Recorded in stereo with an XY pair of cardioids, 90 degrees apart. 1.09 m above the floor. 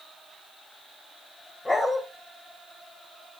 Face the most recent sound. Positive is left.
turn(degrees=30)